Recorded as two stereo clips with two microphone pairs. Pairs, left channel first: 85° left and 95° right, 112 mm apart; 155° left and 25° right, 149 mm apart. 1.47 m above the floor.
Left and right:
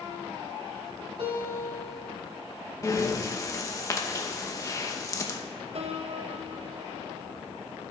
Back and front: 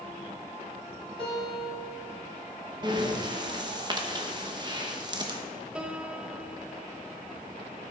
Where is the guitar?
75° right, 3 m.